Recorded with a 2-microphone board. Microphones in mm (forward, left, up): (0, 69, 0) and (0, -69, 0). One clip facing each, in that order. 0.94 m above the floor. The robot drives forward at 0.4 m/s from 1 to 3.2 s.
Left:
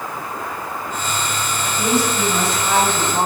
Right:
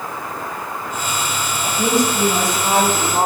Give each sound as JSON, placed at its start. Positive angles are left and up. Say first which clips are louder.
{"t": 1.6, "sound": "a woman speaking", "louder": "right 2 dB", "side_deg": -30, "distance_m": 4.5}